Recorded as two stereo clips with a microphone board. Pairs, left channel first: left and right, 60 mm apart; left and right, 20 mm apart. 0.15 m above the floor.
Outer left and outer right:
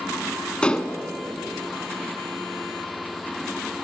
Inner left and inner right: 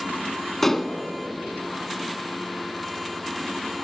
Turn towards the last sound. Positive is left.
turn(degrees=15)  # may be behind; listen again after turning